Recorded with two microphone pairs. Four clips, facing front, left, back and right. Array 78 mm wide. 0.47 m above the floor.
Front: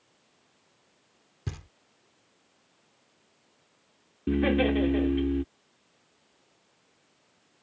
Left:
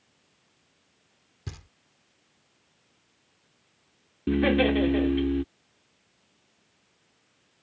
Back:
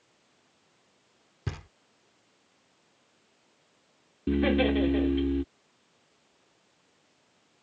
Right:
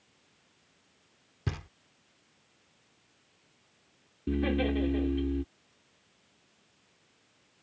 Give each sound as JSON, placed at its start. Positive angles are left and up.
{"t": 1.5, "sound": "knocking", "azimuth_deg": -130}
{"t": 4.3, "sound": "laughter", "azimuth_deg": 90}